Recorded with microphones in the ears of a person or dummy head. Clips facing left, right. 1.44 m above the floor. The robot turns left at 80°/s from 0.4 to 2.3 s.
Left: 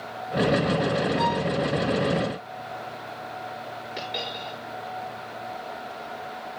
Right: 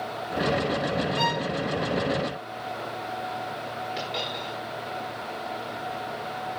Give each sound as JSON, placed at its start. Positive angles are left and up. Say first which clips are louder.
{"t": 1.2, "sound": "a violin", "louder": "left 3 dB", "side_deg": -35, "distance_m": 0.5}
{"t": 4.0, "sound": "a dropped coin", "louder": "right 1 dB", "side_deg": 0, "distance_m": 6.0}